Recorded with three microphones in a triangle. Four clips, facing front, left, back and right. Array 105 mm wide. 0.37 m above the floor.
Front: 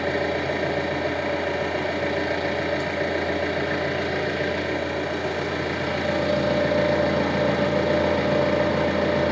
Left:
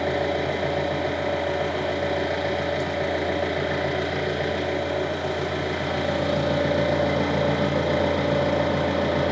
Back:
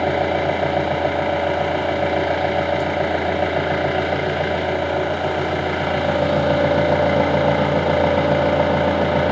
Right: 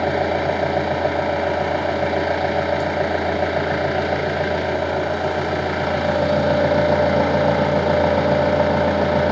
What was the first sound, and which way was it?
An engine running, 135° right.